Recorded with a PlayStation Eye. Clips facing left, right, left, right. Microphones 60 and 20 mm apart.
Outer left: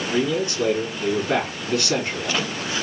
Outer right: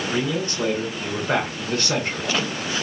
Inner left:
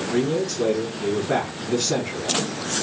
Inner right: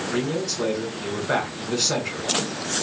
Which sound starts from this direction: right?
A man speaking, at 0.1 s.